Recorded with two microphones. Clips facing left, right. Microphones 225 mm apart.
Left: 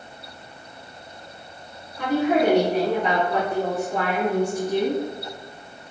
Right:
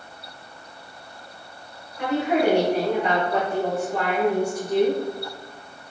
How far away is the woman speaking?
About 1.9 m.